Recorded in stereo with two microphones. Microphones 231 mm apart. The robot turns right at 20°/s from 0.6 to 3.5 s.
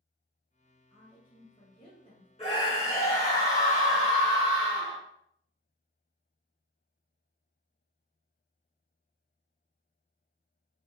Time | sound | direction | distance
0.9 | a woman speaking | 20° left (ahead or behind) | 1.1 m
2.4 | a scream | 25° left (ahead or behind) | 1.7 m